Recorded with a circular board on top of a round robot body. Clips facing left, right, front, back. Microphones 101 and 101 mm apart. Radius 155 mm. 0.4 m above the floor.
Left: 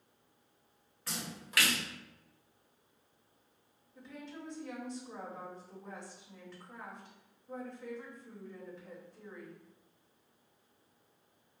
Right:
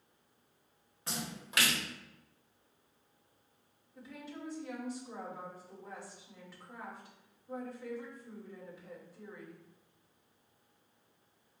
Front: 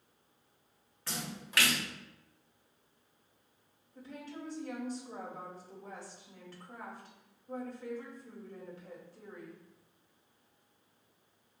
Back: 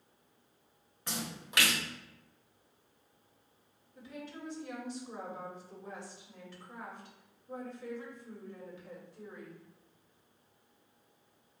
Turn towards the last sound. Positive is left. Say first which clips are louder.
# right 1 dB, even
turn(degrees=-10)